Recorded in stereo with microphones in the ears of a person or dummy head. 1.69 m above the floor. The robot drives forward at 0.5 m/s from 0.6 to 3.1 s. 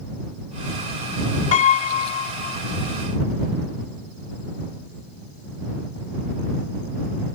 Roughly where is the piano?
Left.